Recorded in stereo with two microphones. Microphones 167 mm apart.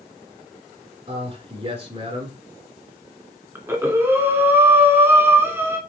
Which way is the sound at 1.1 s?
35° right (ahead or behind).